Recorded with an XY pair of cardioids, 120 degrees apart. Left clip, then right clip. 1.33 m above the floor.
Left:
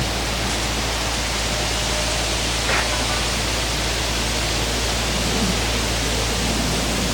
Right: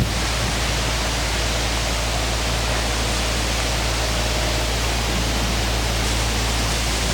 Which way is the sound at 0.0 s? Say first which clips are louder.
Even; 15° right.